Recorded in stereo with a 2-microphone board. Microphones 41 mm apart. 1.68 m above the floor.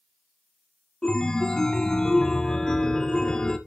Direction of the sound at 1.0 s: 20° left (ahead or behind).